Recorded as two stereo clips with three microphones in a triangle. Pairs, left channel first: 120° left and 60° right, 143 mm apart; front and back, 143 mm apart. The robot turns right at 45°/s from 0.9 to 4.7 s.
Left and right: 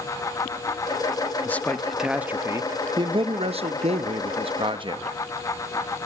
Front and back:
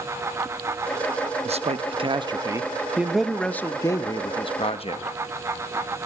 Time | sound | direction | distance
1.4 | a man speaking | 170° right | 0.8 m